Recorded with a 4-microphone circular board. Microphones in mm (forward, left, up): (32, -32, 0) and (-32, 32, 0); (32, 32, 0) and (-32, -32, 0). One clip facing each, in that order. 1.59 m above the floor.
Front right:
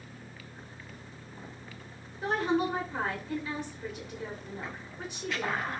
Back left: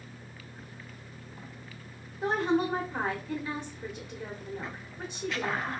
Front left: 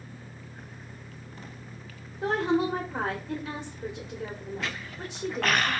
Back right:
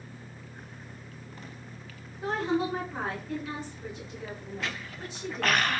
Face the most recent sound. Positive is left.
turn(degrees=65)